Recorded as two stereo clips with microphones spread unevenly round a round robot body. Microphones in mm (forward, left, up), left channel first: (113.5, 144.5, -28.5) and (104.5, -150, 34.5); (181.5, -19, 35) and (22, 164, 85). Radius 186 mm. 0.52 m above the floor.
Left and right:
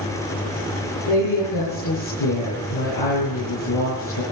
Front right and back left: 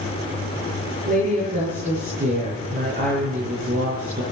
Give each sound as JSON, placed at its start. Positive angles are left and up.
{"t": 1.1, "sound": "a woman speaking", "azimuth_deg": 80, "distance_m": 8.0}